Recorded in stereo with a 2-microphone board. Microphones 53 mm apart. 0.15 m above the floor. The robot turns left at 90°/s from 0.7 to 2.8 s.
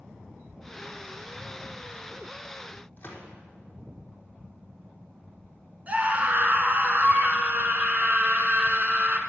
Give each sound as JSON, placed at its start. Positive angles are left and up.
{"t": 3.0, "sound": "a gunshot", "side_deg": 35, "distance_m": 3.0}
{"t": 5.9, "sound": "a scream", "side_deg": -30, "distance_m": 1.5}